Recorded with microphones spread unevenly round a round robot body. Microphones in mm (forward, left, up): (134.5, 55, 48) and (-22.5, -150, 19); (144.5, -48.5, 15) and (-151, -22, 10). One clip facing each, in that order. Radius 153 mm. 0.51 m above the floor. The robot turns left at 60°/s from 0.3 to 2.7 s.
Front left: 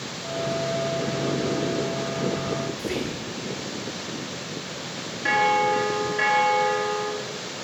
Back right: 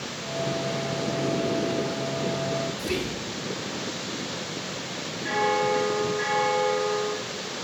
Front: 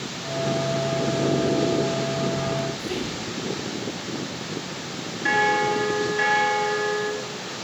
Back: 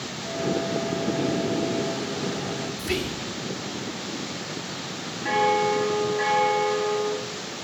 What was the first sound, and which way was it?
Whispering, 165° left.